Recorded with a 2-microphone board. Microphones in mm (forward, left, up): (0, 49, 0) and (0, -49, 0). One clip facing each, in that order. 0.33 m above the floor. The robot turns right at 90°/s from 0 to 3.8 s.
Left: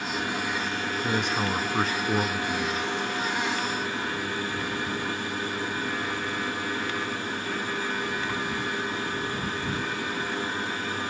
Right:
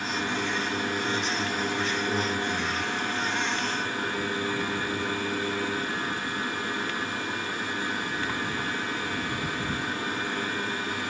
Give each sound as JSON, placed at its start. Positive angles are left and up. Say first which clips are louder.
{"t": 1.0, "sound": "a man speaking", "louder": "left 2 dB", "azimuth_deg": 50}